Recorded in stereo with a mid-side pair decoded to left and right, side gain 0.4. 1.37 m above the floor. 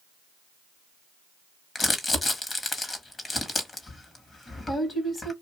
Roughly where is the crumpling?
Ahead left.